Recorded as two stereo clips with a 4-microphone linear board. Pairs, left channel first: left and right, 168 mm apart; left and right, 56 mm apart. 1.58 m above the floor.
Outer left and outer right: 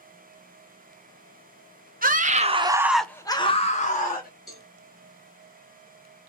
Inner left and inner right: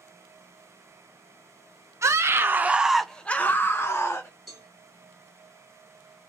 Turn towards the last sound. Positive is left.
turn(degrees=0)  # may be behind; listen again after turning